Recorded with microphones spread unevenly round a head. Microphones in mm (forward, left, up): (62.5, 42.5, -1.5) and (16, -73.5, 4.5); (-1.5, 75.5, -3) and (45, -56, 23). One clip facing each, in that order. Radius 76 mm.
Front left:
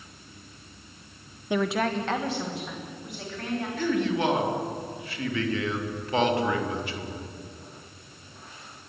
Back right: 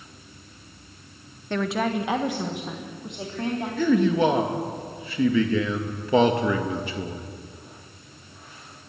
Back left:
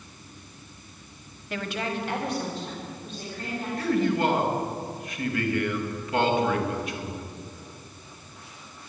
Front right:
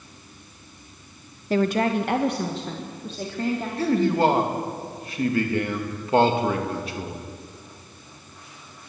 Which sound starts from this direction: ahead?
A woman speaking, at 1.5 s.